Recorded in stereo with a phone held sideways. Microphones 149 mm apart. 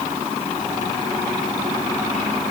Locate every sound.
Only background noise.